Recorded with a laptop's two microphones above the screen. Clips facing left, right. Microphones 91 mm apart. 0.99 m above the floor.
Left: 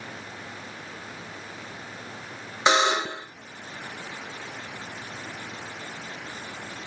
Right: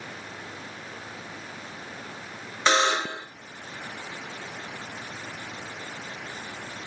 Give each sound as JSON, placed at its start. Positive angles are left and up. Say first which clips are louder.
{"t": 2.7, "sound": "a buzzer", "louder": "left 1 dB", "side_deg": 15, "distance_m": 1.3}